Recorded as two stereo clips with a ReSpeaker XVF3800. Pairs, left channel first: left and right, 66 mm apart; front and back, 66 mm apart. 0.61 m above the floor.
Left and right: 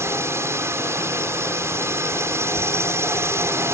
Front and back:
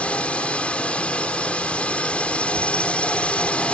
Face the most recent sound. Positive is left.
turn(degrees=-65)